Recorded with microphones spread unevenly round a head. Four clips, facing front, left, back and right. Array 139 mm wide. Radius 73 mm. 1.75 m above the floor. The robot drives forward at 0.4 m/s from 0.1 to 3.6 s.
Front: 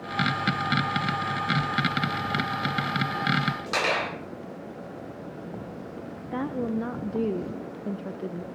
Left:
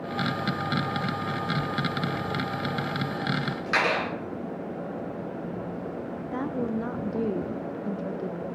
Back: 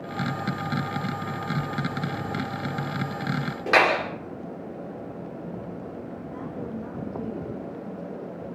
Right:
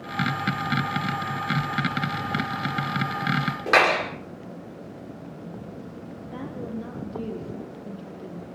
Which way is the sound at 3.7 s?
140° right.